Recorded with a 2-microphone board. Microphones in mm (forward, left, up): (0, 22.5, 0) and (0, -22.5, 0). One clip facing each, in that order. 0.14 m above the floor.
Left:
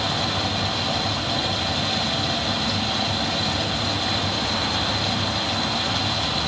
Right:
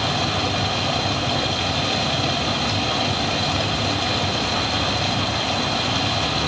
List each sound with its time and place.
0.0 s running water: 55° right (ahead or behind), 2.5 m